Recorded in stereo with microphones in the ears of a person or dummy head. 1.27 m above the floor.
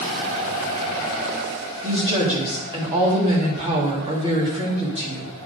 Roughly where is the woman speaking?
Right.